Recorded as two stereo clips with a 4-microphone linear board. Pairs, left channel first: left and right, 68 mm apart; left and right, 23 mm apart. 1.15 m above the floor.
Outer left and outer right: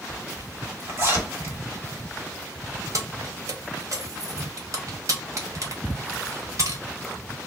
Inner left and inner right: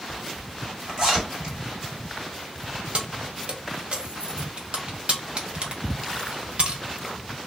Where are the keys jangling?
55° right (ahead or behind), 0.6 m.